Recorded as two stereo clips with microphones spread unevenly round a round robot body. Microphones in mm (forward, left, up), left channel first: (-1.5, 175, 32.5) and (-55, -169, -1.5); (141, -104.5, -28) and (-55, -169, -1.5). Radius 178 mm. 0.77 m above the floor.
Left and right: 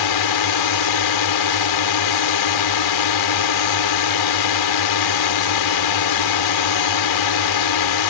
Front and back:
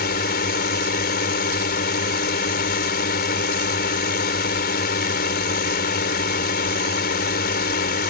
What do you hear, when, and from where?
0.0 s a drone: 70° left